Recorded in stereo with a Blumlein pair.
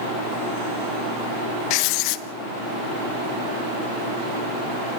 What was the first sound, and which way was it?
Writing, 45° left.